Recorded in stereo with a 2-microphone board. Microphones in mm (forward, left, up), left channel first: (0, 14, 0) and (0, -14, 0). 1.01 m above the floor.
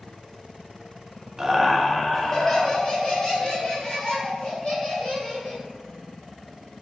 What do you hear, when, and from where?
1.4 s laughter: 20° right (ahead or behind), 0.5 m; by 5.6 s 40° left (ahead or behind), 2.5 m